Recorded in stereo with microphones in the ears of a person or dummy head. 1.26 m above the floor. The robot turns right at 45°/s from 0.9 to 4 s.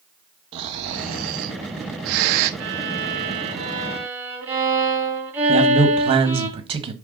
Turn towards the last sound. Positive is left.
turn(degrees=-30)  # may be behind; listen again after turning